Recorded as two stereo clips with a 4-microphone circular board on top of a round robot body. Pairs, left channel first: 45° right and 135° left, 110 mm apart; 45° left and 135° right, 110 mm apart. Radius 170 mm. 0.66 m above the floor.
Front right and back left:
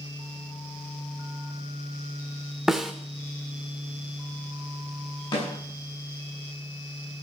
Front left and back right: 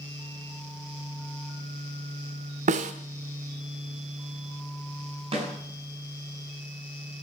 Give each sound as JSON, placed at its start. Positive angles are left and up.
{"t": 2.7, "sound": "a snare drum", "azimuth_deg": -140, "distance_m": 0.6}
{"t": 5.3, "sound": "a snare drum", "azimuth_deg": -95, "distance_m": 9.0}